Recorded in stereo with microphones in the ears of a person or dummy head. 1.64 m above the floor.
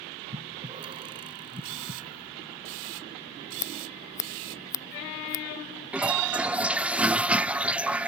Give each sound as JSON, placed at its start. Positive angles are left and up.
{"t": 0.3, "sound": "breathing", "side_deg": -25}
{"t": 1.6, "sound": "a camera shutter", "side_deg": -70}
{"t": 3.6, "sound": "scissors", "side_deg": 15}
{"t": 5.9, "sound": "a toilet flushing", "side_deg": -5}